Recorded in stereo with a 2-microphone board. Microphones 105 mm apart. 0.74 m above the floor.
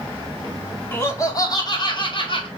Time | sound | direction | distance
0.9 | laughter | 20° left (ahead or behind) | 2 m